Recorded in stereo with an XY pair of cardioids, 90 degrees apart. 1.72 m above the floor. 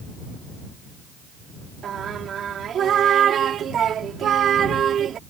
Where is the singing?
65° right.